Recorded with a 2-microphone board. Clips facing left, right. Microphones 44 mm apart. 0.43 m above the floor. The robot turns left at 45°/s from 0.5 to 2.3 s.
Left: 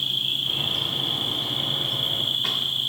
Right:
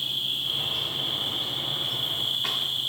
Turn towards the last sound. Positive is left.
turn(degrees=45)